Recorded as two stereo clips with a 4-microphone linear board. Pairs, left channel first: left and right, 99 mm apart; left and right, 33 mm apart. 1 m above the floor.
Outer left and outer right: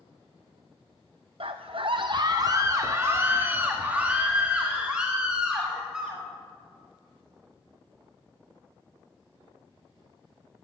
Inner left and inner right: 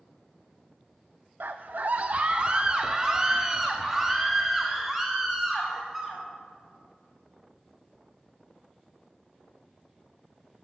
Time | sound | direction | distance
1.4 | a scream | 65° right (ahead or behind) | 0.5 m